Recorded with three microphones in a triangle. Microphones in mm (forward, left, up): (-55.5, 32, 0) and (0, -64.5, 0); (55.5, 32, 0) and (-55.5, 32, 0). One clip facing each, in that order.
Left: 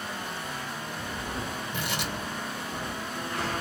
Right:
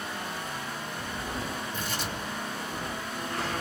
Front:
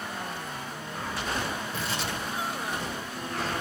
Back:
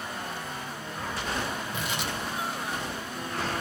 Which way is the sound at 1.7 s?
105° left.